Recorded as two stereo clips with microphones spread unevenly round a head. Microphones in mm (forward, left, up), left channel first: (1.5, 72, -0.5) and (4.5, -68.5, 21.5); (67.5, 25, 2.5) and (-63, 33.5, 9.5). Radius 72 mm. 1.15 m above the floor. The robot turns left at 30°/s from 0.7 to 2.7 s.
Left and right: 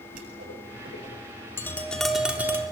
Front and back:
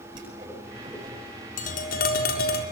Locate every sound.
0.1 s a whoosh: 120° right, 9 m; by 1.4 s 145° right, 9 m
1.6 s tapping: 20° left, 3.5 m; by 2.6 s 15° right, 3.5 m